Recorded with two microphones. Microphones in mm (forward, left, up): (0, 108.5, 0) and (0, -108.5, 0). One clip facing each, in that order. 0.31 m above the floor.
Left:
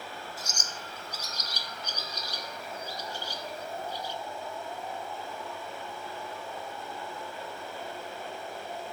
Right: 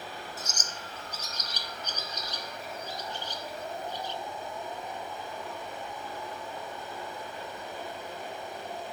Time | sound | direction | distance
0.4 | a bird | 10° left (ahead or behind) | 1.0 m